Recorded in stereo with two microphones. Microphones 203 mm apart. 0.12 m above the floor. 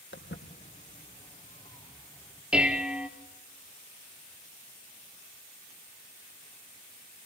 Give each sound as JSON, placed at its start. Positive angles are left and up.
{"t": 0.1, "sound": "footsteps", "side_deg": 75, "distance_m": 1.6}
{"t": 2.5, "sound": "dishes clattering", "side_deg": -5, "distance_m": 1.7}